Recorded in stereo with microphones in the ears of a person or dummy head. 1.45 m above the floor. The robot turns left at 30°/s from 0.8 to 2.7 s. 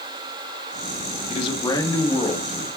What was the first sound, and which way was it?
A man speaking, 40° left.